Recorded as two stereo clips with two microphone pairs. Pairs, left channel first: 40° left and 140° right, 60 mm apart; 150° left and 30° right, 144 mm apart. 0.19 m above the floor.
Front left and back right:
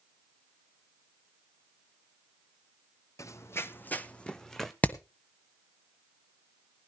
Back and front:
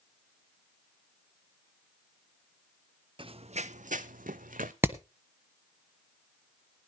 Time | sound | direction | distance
3.2 | running footsteps | 20° left | 0.7 m
4.8 | hammering | 30° left | 1.3 m